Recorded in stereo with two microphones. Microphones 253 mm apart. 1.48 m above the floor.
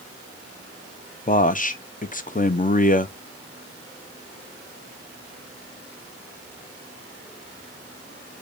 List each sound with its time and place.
1.3 s a man speaking: 35° left (ahead or behind), 0.5 m